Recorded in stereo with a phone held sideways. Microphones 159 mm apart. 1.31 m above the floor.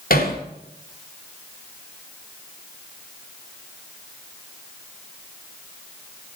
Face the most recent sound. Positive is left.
turn(degrees=65)  # may be behind; listen again after turning